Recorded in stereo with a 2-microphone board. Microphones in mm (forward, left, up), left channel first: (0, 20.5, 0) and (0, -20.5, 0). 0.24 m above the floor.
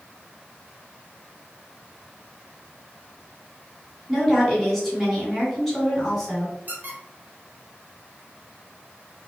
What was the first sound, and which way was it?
A woman speaking, centre (ahead or behind).